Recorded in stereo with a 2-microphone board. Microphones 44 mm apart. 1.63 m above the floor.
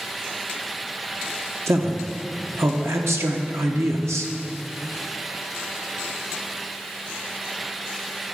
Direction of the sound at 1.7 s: 70° right (ahead or behind).